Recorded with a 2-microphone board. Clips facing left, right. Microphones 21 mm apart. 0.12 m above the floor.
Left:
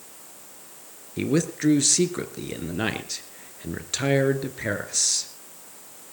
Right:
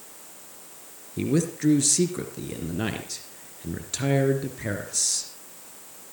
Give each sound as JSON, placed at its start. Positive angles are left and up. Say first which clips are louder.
{"t": 1.2, "sound": "a man speaking", "louder": "left 1 dB", "side_deg": 20, "distance_m": 2.0}